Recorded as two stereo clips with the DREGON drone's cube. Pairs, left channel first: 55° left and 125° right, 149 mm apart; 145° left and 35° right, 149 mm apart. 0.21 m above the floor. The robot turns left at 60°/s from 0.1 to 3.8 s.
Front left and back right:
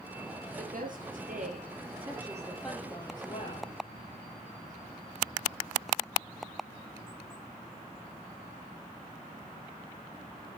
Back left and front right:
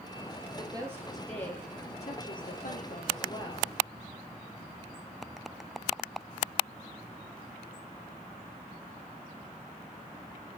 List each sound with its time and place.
0.6 s a woman speaking: 85° right, 4 m; by 3.7 s 85° left, 4 m